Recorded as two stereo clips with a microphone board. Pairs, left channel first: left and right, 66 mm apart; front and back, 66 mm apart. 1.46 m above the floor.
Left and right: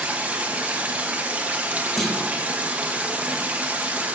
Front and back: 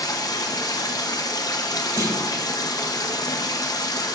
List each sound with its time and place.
0.0 s running water: 20° right, 0.9 m
2.0 s a clunk: 175° left, 1.7 m